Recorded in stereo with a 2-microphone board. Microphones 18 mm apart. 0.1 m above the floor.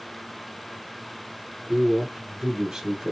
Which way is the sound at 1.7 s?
50° right (ahead or behind).